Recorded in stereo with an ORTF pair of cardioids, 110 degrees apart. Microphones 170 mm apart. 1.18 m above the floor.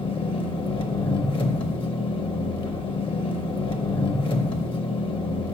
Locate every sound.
0.0 s an engine running: 30° left, 0.9 m